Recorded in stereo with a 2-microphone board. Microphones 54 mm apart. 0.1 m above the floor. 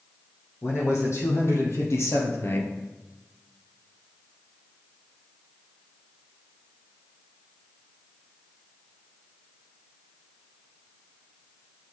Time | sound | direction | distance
0.6 | a man speaking | 60° left (ahead or behind) | 4 m